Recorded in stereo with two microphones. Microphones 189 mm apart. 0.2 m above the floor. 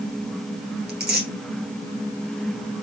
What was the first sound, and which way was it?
Tearing paper, 60° right (ahead or behind).